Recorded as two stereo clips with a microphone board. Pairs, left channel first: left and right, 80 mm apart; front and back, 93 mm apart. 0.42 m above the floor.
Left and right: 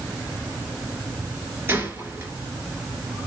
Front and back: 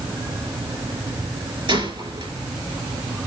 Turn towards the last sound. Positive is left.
turn(degrees=-155)